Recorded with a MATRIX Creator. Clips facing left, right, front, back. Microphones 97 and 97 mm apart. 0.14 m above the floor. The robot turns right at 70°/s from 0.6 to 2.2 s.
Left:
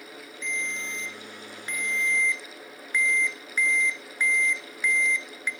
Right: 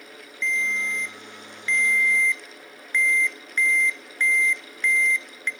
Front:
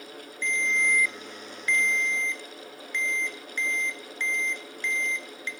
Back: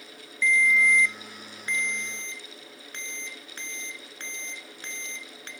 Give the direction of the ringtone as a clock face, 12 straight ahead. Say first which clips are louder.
Right 7 dB, back 5 dB; 10 o'clock.